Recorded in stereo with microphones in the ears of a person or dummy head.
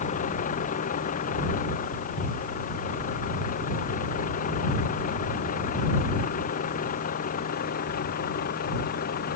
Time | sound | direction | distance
0.0 | a vehicle | 45° left (ahead or behind) | ?